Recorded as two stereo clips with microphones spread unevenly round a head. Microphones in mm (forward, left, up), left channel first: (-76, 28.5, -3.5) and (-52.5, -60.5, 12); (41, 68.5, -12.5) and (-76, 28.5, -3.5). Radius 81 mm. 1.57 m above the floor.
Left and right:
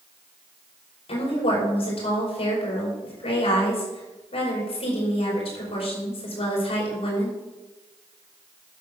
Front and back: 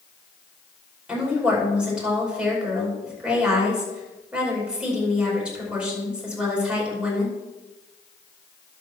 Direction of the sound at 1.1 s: 115° left.